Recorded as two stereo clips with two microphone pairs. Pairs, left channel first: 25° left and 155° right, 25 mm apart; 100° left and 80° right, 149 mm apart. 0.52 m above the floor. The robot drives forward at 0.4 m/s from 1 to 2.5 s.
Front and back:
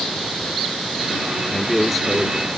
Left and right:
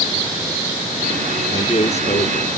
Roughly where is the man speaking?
Left.